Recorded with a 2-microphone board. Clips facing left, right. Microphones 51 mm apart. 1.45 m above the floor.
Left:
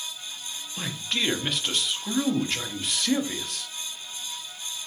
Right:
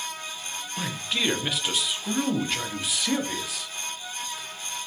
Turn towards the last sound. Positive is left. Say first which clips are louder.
# right 1 dB
turn(degrees=-5)  # may be behind; listen again after turning